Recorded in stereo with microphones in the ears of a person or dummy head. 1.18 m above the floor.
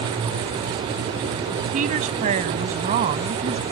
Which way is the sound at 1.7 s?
40° right (ahead or behind).